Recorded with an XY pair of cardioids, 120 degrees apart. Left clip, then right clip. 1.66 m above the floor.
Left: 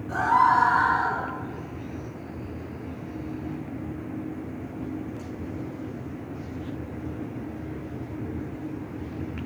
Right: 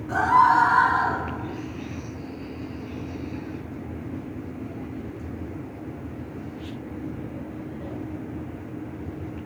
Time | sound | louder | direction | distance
0.1 | a scream | right 2 dB | 25° right | 5 m